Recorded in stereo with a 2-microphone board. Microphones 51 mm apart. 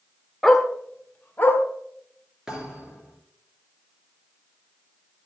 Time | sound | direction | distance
0.4 | a dog barking | centre (ahead or behind) | 1.1 m
2.5 | a thud | 15° right (ahead or behind) | 3.5 m